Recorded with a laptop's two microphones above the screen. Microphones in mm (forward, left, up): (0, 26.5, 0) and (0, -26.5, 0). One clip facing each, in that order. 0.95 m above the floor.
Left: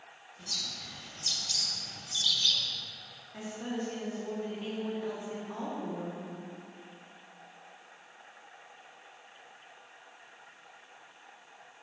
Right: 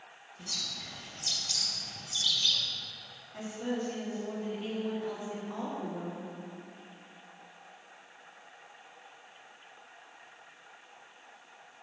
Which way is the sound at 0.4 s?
10° right (ahead or behind).